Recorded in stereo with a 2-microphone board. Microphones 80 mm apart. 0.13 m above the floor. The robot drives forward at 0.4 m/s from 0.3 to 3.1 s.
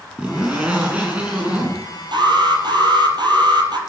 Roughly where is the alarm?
Right.